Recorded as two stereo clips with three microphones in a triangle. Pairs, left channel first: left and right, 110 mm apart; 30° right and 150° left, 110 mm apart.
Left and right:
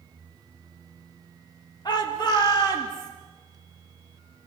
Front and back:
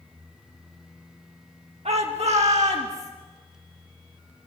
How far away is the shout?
About 1.7 m.